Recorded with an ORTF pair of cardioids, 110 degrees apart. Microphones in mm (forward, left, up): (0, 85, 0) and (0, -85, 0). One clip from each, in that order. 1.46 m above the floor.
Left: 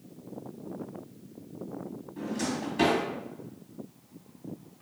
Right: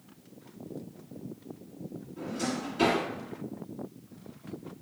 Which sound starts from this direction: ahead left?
A drawer, at 2.2 s.